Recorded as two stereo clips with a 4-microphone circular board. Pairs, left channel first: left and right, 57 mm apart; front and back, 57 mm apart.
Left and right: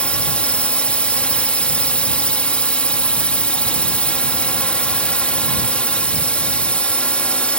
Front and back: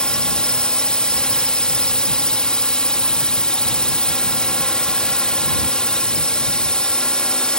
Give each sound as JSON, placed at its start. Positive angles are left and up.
{"t": 0.0, "sound": "a drone", "azimuth_deg": 55}